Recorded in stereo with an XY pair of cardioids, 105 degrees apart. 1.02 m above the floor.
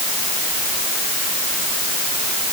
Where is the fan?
No fan in this recording.